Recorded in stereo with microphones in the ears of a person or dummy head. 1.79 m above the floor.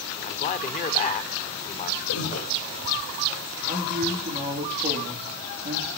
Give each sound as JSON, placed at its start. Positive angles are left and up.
{"t": 0.2, "sound": "a man speaking", "side_deg": 45, "distance_m": 0.7}
{"t": 2.1, "sound": "breathing", "side_deg": 70, "distance_m": 6.5}
{"t": 3.7, "sound": "a man speaking", "side_deg": -30, "distance_m": 3.5}